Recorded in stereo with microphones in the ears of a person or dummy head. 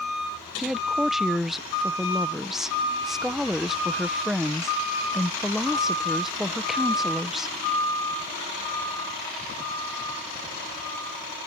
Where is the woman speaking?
Centre (ahead or behind).